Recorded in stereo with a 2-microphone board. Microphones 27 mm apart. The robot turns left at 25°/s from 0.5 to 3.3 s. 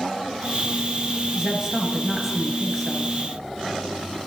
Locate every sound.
1.4 s a woman speaking: 150° right, 1.5 m; by 3.2 s 165° left, 1.5 m